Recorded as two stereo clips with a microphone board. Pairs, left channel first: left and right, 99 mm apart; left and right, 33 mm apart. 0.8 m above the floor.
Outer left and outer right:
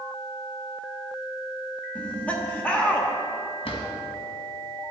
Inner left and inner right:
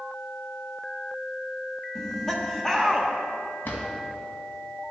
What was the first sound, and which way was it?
Laughter, 15° left (ahead or behind).